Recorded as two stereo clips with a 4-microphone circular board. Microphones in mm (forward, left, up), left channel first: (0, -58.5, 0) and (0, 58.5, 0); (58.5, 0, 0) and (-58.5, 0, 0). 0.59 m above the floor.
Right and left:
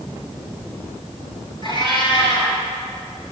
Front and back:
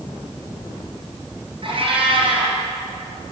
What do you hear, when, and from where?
1.6 s a cat meowing: 135° right, 5 m